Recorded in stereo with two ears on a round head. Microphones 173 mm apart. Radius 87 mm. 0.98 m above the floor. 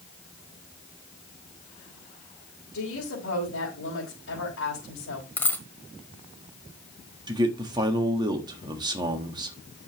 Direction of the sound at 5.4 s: 10° left (ahead or behind).